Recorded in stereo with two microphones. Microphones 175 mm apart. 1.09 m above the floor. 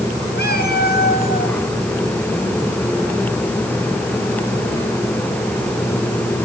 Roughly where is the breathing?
I don't hear breathing.